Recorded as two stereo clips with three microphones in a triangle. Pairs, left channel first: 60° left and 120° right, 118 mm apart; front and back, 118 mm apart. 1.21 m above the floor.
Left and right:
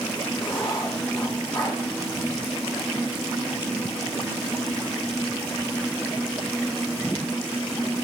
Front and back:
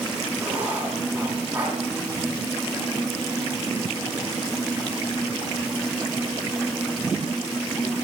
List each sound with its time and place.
0.4 s writing: 105° left, 2 m